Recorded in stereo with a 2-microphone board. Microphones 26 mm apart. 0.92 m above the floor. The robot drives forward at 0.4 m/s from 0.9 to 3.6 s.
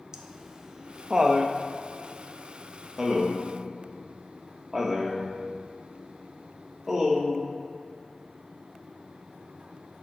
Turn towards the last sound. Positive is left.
turn(degrees=-15)  # may be behind; listen again after turning